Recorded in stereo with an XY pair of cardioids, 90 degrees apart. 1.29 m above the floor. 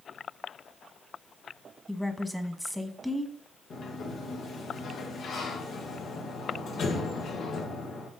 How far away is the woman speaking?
About 1.3 m.